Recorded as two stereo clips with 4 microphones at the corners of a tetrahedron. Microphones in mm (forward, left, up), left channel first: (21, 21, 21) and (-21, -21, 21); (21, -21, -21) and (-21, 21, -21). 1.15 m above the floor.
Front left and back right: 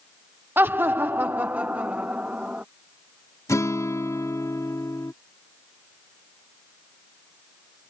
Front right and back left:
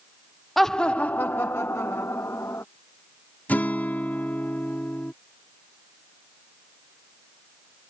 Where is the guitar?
15° left.